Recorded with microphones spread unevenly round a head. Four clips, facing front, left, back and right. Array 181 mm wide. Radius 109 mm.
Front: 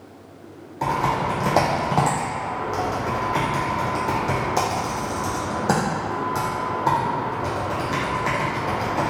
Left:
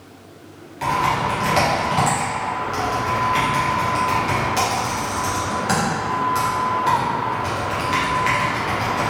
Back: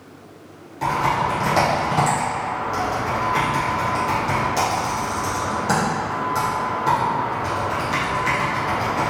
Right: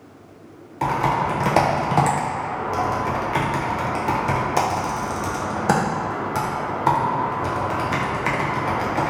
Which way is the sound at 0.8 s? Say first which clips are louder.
Left 1 dB, back 2 dB; 55° right.